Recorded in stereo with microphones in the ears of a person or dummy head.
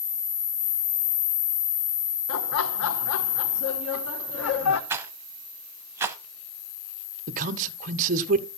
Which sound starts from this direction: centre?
A rattle, at 4.9 s.